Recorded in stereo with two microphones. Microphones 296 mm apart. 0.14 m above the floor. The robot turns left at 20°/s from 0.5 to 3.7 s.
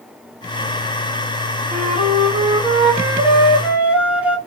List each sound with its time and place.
1.7 s a flute: 135° right, 1.2 m; by 4.4 s 175° right, 1.2 m